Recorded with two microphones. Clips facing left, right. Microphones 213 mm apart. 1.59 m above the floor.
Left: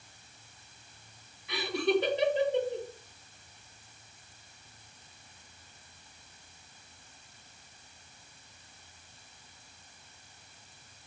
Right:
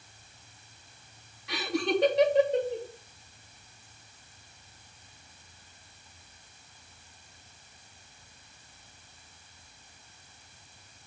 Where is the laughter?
70° right (ahead or behind), 2.5 m.